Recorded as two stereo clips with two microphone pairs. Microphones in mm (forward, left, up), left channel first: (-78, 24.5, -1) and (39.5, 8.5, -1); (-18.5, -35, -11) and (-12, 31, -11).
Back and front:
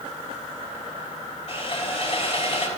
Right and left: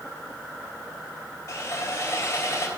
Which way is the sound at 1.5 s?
150° right.